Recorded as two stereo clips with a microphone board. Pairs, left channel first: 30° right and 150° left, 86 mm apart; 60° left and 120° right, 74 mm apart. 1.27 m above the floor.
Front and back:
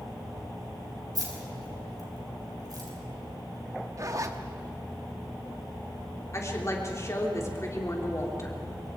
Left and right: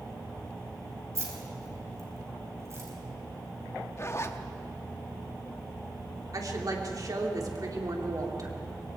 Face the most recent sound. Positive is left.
turn(degrees=-85)